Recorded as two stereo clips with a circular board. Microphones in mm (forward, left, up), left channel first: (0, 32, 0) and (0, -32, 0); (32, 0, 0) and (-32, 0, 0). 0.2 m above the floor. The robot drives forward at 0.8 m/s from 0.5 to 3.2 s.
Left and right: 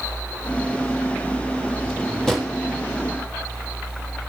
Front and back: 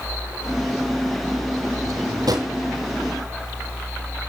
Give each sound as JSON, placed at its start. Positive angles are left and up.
{"t": 1.8, "sound": "a drawer", "azimuth_deg": 175, "distance_m": 3.0}